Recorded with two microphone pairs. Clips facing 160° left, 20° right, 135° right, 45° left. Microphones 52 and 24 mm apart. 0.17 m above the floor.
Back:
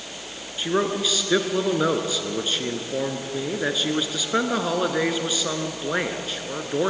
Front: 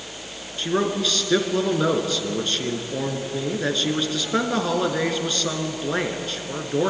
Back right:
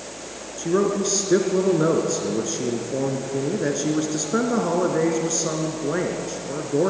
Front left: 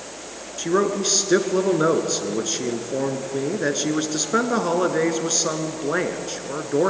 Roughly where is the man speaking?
Left.